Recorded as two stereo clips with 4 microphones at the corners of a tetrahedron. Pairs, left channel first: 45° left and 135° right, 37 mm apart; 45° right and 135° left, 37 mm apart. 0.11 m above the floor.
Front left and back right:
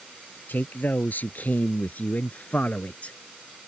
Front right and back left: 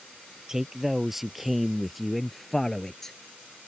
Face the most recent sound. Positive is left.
turn(degrees=25)